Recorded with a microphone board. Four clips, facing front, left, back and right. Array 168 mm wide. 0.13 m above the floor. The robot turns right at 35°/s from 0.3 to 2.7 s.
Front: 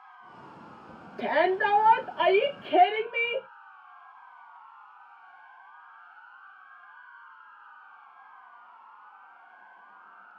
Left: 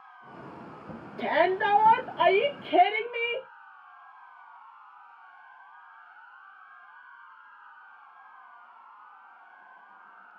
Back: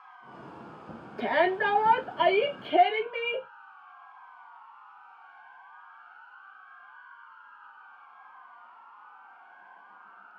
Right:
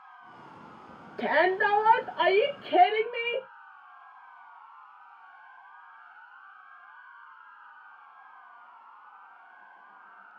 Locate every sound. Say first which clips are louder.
1.2 s a shout: even, front 1 dB; 110° right, 1.2 m; by 3.5 s 60° right, 1.2 m